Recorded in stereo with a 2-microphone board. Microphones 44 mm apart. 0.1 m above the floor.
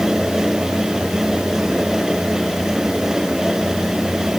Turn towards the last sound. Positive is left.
No sound to turn to.